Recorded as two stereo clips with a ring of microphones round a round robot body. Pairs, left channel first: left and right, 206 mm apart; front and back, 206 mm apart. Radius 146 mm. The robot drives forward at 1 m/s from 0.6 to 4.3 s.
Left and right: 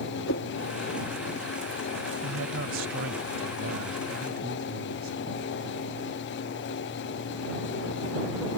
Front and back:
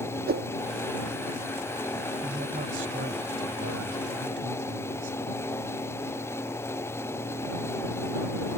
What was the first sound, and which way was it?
A whoosh, 140° left.